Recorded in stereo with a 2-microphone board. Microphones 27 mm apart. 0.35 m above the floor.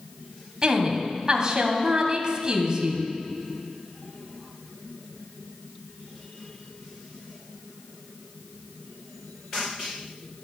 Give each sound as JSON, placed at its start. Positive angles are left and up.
{"t": 0.6, "sound": "a woman speaking", "side_deg": -25, "distance_m": 2.0}